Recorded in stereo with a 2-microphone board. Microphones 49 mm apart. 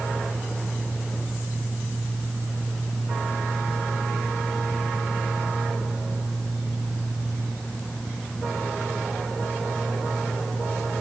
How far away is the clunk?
No clunk in this recording.